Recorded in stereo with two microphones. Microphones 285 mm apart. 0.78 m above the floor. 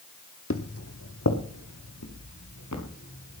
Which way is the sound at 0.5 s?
50° left (ahead or behind).